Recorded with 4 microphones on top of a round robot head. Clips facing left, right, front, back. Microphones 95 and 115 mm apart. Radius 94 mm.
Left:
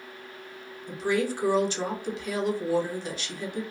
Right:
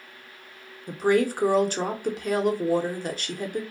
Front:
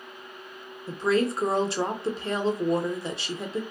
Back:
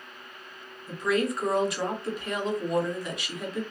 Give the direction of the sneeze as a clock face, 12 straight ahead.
I don't hear a sneeze.